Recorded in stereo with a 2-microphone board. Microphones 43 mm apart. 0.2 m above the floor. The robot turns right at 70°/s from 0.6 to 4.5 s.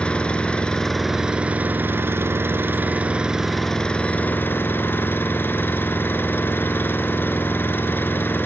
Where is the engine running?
155° left, 2 m; by 8.5 s 65° left, 2 m.